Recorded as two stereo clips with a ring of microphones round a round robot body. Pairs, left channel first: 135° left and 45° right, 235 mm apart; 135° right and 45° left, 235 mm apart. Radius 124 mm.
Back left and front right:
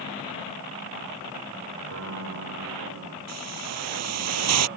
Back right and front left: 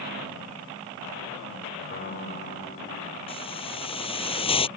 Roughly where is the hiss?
Ahead right.